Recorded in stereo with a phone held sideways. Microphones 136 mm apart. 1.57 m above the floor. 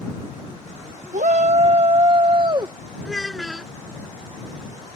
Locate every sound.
1.1 s a shout: 65° right (ahead or behind); by 2.8 s 30° right (ahead or behind)
3.0 s a child speaking: centre (ahead or behind)